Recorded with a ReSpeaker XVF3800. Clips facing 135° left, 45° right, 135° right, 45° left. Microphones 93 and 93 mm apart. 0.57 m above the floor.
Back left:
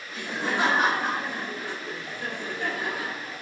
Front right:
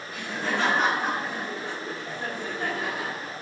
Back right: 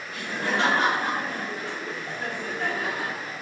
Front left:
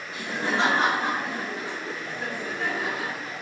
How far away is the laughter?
About 1.2 m.